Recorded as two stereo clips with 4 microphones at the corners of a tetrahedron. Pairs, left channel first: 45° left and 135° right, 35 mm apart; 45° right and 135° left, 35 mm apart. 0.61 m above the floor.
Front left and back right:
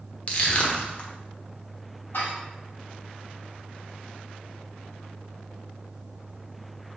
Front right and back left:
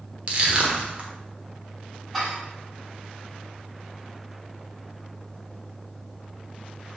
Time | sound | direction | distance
0.3 | crushing | 90° left | 1.0 m
2.1 | dishes clattering | 45° left | 2.0 m